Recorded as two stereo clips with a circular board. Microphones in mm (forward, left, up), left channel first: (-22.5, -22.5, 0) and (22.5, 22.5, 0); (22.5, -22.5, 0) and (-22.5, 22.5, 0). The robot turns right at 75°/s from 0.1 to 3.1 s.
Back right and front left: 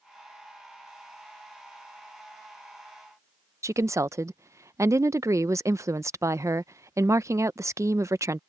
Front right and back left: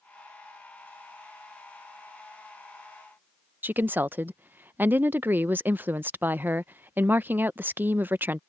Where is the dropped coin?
No dropped coin in this recording.